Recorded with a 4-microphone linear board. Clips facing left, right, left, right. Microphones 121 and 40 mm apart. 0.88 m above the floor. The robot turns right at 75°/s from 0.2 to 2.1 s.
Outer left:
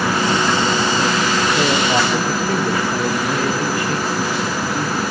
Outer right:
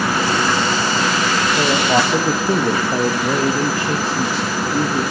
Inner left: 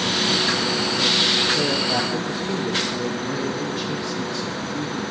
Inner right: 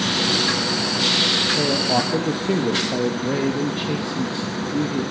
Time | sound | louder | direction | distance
1.6 | a man speaking | outer right 3 dB, inner right 2 dB | 175° left | 1.2 m